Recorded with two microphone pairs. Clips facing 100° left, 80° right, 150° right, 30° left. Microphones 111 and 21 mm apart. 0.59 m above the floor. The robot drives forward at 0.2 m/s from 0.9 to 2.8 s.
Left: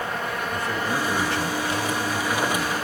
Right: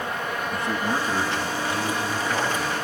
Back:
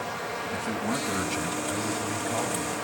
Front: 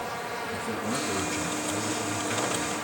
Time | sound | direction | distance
0.5 | a man speaking | 145° right | 3 m